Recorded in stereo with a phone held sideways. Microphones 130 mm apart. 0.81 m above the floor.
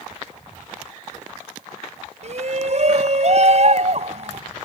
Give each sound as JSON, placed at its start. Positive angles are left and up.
{"t": 2.2, "sound": "a shout", "side_deg": -55}